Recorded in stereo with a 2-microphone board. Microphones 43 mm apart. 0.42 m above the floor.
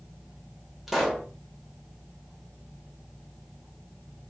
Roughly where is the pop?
Centre.